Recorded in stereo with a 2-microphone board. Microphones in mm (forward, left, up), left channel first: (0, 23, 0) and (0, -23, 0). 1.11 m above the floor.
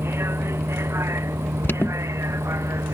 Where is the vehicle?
60° right (ahead or behind); by 3.0 s 80° right.